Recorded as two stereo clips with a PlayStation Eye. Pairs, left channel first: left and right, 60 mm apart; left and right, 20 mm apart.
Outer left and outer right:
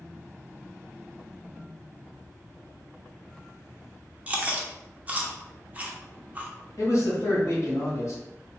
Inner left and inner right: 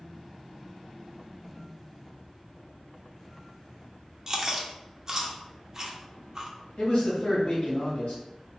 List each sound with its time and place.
4.3 s chewing: 25° right (ahead or behind), 0.5 m
6.8 s a man speaking: 55° left (ahead or behind), 1.5 m